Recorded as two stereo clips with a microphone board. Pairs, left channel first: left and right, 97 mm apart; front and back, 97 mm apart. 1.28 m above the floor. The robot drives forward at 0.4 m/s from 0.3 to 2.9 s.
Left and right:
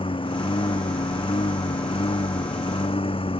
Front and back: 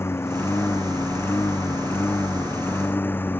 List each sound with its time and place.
0.0 s a lawn mower: 65° left; by 3.4 s 70° left